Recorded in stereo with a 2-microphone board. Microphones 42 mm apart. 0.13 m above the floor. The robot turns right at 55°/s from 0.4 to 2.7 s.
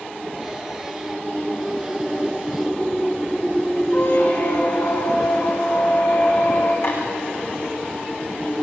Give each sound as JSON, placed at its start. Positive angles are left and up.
{"t": 3.9, "sound": "a squeak", "side_deg": 65, "distance_m": 8.0}
{"t": 6.8, "sound": "tapping", "side_deg": 80, "distance_m": 8.0}